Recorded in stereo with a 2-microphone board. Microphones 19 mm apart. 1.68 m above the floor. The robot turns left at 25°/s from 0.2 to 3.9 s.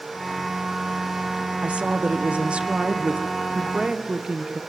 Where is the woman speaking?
75° right, 1.3 m; by 4.6 s 135° right, 1.3 m.